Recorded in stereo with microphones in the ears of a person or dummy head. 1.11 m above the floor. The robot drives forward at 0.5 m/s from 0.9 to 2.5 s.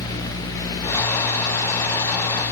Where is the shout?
I don't hear a shout.